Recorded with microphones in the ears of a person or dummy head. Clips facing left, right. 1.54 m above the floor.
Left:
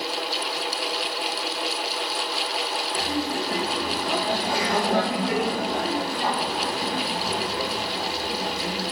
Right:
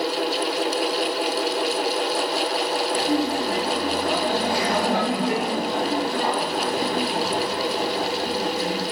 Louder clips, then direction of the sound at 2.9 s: Right 4 dB; 15° right (ahead or behind).